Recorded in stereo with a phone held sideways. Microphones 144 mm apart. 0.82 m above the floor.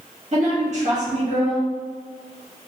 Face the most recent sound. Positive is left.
turn(degrees=-55)  # may be behind; listen again after turning